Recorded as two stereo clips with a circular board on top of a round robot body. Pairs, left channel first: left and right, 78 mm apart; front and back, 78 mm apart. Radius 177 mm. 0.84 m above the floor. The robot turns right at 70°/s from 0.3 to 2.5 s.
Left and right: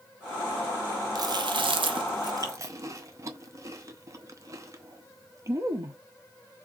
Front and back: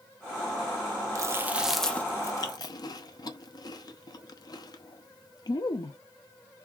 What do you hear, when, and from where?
1.1 s chewing: 130° right, 0.8 m; by 6.0 s 35° right, 0.8 m